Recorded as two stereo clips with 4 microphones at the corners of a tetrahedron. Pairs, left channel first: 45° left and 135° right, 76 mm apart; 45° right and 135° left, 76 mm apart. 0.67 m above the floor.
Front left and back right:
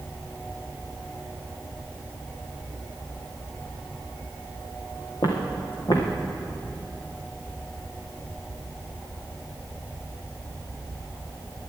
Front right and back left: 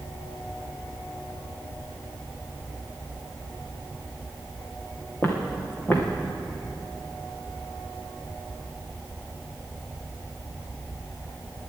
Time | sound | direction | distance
5.2 | footsteps | 20° left | 2.5 m